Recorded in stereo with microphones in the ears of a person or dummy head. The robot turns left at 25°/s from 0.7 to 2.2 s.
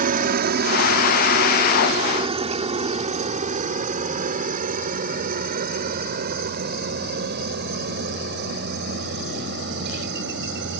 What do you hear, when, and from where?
0.0 s a helicopter: 50° right (ahead or behind); by 10.8 s 65° right (ahead or behind)